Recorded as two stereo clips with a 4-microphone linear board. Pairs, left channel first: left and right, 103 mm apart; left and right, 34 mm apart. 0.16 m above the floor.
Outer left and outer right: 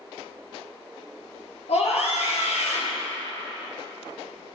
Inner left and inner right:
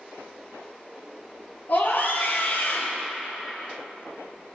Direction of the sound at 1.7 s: 70° left (ahead or behind).